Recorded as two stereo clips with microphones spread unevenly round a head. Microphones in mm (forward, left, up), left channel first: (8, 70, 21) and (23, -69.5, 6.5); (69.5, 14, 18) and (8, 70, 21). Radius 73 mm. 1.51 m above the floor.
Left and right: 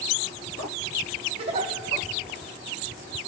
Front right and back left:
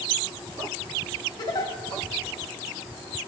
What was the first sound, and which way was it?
A giggle, 60° right.